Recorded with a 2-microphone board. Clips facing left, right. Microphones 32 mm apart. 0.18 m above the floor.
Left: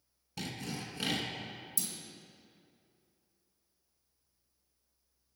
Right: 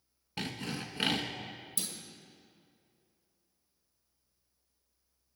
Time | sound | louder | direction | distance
0.4 | sawing | right 2 dB | 30° right (ahead or behind) | 0.7 m
1.8 | a clunk | right 2 dB | 30° right (ahead or behind) | 1.2 m